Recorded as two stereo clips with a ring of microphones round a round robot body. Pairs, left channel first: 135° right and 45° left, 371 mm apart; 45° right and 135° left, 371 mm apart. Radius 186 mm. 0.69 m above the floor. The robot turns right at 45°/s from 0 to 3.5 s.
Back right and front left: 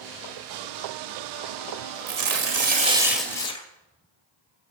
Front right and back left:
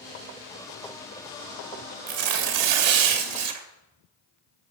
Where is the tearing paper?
85° left, 2.5 m; by 3.6 s 150° left, 2.5 m.